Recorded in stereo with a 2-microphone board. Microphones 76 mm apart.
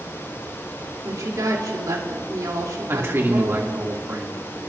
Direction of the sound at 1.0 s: 60° right (ahead or behind).